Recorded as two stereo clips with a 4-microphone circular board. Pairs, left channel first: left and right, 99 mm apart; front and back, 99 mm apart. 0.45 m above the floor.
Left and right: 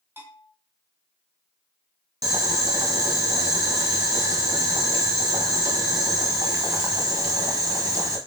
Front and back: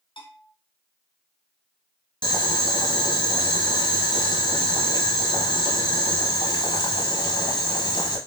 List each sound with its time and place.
0.2 s a bell: 25° right, 1.7 m
2.2 s boiling: 40° right, 0.9 m